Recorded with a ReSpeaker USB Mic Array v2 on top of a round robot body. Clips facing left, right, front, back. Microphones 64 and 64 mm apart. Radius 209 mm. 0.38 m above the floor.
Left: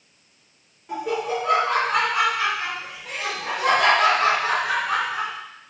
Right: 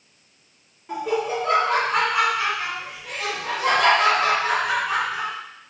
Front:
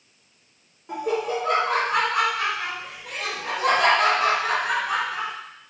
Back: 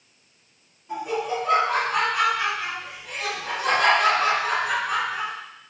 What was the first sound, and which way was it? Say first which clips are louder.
Laughter: right 1 dB, front 2 dB; 5° right.